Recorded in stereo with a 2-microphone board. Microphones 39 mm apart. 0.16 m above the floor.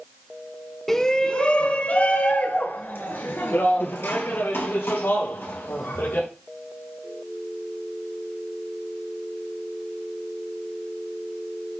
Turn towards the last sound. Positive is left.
turn(degrees=75)  # may be behind; listen again after turning